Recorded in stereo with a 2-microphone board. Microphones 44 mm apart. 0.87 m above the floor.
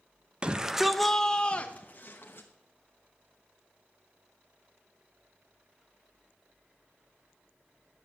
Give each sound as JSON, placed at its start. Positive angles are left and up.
{"t": 0.4, "sound": "a shout", "side_deg": -20, "distance_m": 0.7}